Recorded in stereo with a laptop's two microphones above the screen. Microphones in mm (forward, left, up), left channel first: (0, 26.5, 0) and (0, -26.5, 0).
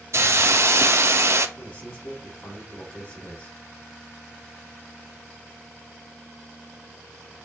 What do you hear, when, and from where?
0.1 s a hiss: 60° right (ahead or behind), 1.0 m
1.6 s a man speaking: 40° left (ahead or behind), 3 m